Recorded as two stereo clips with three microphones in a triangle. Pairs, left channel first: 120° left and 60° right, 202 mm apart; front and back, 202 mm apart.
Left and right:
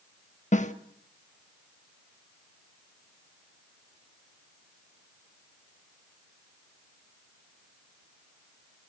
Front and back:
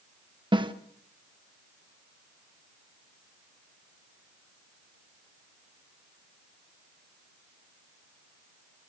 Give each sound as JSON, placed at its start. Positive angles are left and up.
{"t": 0.5, "sound": "a snare drum", "azimuth_deg": 130, "distance_m": 1.1}